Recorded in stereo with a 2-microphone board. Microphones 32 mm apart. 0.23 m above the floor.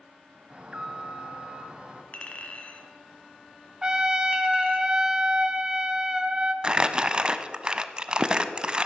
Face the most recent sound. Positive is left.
turn(degrees=-30)  # may be behind; listen again after turning